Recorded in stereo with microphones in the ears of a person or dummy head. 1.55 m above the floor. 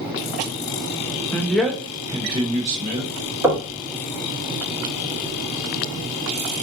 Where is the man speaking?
10° left (ahead or behind), 0.8 m; by 3.1 s 45° right (ahead or behind), 1.1 m.